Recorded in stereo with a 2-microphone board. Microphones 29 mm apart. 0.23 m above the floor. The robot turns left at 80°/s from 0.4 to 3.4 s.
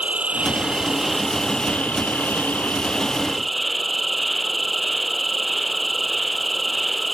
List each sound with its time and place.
0.0 s an insect: 120° right; by 7.1 s straight ahead